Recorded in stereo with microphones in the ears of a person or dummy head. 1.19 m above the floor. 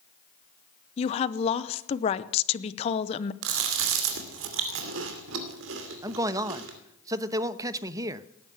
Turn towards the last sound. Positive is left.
turn(degrees=-20)  # may be behind; listen again after turning